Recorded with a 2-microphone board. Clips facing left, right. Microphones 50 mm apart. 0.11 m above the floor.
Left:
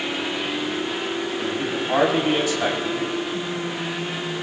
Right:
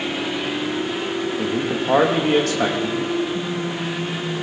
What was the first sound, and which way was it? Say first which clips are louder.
A man speaking: right 3 dB; 70° right (ahead or behind).